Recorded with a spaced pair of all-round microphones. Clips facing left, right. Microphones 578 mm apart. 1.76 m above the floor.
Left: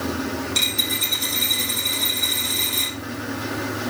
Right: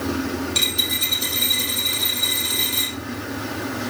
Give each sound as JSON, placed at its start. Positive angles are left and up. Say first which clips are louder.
{"t": 0.6, "sound": "a dropped coin", "louder": "even", "side_deg": -35, "distance_m": 2.5}